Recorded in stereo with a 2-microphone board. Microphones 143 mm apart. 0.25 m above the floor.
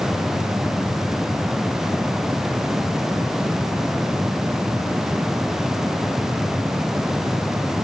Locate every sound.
Only background noise.